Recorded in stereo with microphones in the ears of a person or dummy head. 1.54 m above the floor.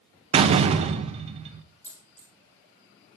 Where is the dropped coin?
10° right (ahead or behind), 2.5 m.